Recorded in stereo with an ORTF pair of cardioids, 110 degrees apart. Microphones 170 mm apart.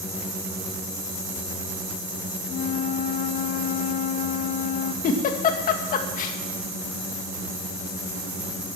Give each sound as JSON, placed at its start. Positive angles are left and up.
{"t": 2.5, "sound": "a flute", "azimuth_deg": 50, "distance_m": 0.9}
{"t": 5.0, "sound": "a giggle", "azimuth_deg": 55, "distance_m": 1.9}